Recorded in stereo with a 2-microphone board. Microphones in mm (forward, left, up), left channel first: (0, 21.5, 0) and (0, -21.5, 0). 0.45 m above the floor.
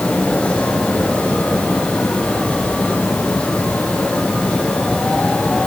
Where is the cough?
I don't hear a cough.